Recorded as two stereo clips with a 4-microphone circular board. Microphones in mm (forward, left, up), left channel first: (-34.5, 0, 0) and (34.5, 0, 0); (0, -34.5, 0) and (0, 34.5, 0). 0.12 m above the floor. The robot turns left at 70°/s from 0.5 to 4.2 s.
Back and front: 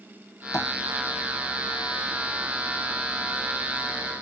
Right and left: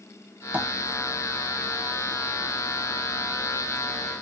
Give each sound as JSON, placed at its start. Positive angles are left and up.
{"t": 0.5, "sound": "tapping", "azimuth_deg": 155, "distance_m": 1.8}